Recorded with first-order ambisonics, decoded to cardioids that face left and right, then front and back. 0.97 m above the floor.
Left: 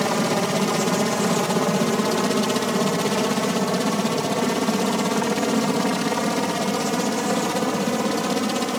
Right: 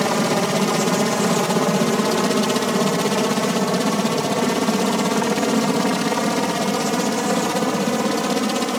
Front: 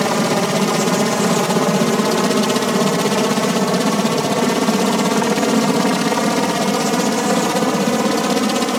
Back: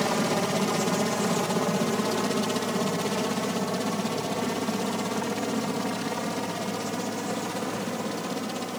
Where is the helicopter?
20° right; by 8.8 s 15° right.